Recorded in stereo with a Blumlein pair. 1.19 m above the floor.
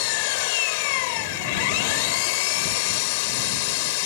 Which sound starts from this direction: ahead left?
An engine running, at 0.0 s.